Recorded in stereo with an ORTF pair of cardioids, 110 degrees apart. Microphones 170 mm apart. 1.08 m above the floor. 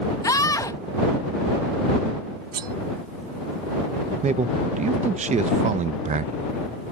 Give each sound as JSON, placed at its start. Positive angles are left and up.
{"t": 0.2, "sound": "a scream", "azimuth_deg": 20}
{"t": 2.5, "sound": "cutlery clinking", "azimuth_deg": -65}
{"t": 4.2, "sound": "a man speaking", "azimuth_deg": -45}